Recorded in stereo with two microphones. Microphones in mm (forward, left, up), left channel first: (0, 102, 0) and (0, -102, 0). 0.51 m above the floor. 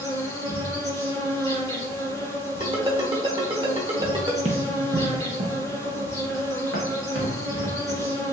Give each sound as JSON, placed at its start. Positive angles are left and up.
{"t": 0.0, "sound": "an insect", "side_deg": -85, "distance_m": 1.6}
{"t": 2.6, "sound": "a ringtone", "side_deg": -25, "distance_m": 1.1}
{"t": 4.5, "sound": "running footsteps", "side_deg": -30, "distance_m": 0.6}